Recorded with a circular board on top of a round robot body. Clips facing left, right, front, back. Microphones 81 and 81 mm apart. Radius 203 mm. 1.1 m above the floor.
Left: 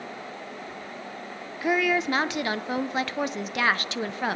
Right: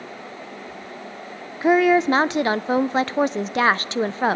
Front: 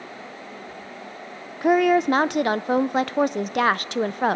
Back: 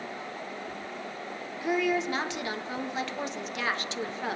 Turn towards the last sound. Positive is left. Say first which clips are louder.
# right 8 dB, front 10 dB
turn(degrees=-35)